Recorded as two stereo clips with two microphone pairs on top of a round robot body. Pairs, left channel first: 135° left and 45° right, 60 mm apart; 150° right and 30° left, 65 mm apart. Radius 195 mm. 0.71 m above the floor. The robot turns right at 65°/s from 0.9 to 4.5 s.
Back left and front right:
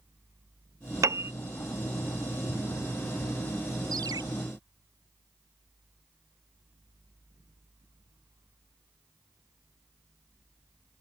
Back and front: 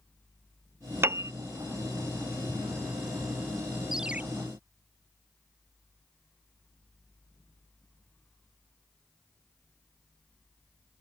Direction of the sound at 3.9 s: 60° right.